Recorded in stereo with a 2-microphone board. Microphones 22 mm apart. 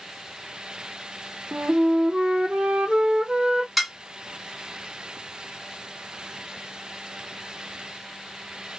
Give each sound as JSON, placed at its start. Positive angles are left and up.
{"t": 1.5, "sound": "a flute", "side_deg": -55, "distance_m": 0.9}
{"t": 3.8, "sound": "dishes clattering", "side_deg": -10, "distance_m": 0.8}